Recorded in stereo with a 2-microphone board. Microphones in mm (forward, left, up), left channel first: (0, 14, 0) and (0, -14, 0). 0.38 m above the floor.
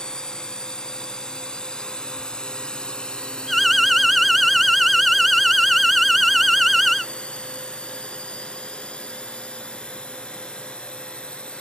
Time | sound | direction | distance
0.0 | a drone | 25° left (ahead or behind) | ?
3.5 | an alarm | centre (ahead or behind) | ?